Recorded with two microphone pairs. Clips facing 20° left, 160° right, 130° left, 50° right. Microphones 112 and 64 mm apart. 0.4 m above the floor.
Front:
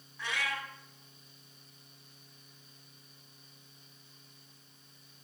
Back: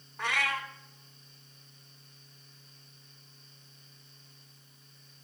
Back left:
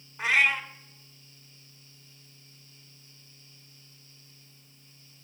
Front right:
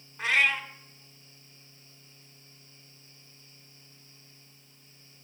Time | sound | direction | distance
0.2 | a cat meowing | 150° right | 0.9 m